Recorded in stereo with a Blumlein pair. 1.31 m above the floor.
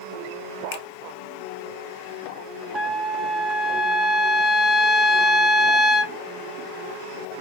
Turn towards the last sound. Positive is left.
turn(degrees=-5)